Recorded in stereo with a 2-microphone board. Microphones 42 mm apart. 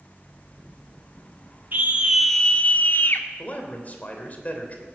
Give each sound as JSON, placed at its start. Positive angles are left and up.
{"t": 1.7, "sound": "a scream", "side_deg": -50, "distance_m": 0.9}
{"t": 3.4, "sound": "a man speaking", "side_deg": 40, "distance_m": 3.0}